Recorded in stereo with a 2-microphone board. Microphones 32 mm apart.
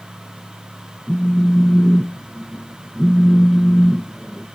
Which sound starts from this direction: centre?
A phone buzzing, at 1.1 s.